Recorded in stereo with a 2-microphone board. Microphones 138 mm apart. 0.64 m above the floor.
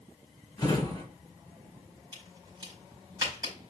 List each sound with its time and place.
0.6 s a drawer: 30° left (ahead or behind), 2 m
2.1 s a crack: 30° right (ahead or behind), 5 m